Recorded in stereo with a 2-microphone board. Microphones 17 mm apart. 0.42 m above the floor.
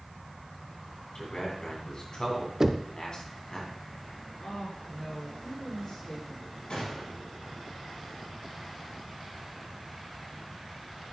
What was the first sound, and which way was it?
A man speaking, 55° left (ahead or behind).